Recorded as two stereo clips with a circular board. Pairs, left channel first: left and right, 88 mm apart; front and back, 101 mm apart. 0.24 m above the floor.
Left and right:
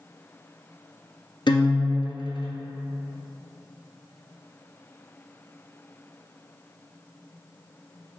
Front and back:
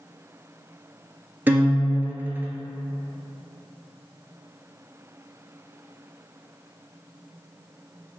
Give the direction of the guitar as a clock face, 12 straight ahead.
8 o'clock.